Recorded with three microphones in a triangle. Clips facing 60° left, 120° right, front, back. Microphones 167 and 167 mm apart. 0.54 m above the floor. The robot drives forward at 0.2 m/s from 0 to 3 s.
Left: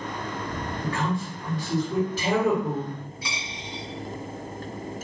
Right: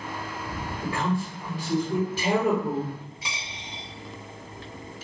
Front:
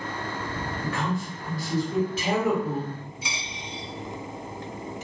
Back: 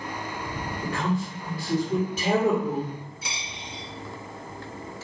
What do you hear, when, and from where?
0.8 s a man speaking: straight behind, 1.8 m
3.2 s a dropped coin: 175° left, 1.5 m